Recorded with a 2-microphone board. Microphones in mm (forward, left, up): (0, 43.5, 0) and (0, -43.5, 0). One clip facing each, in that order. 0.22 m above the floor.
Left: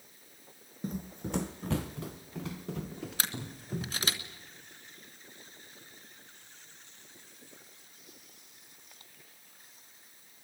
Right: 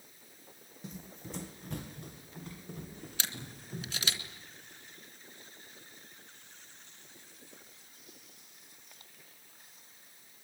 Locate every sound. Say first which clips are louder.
0.8 s running footsteps: left 9 dB; 45° left (ahead or behind), 0.6 m; by 4.2 s 85° left, 3.5 m
3.2 s a camera shutter: left 2 dB; 40° left (ahead or behind), 2.5 m